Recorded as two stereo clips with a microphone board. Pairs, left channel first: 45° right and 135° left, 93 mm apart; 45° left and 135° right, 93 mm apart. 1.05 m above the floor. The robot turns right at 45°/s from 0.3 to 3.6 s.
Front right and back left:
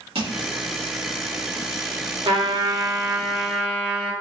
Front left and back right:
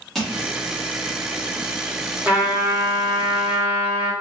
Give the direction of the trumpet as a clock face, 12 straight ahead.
7 o'clock.